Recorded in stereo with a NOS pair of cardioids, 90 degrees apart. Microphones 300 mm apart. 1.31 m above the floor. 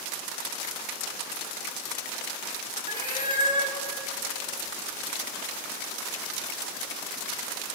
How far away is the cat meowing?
About 4 m.